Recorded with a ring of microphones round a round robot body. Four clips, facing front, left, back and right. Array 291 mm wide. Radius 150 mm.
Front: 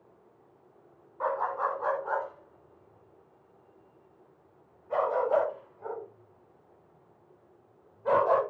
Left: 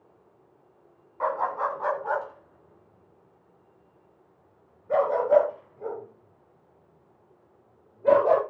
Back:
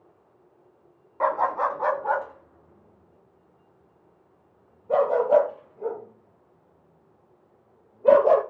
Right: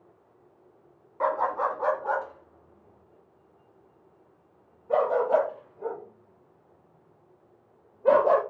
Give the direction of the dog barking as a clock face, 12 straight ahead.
6 o'clock.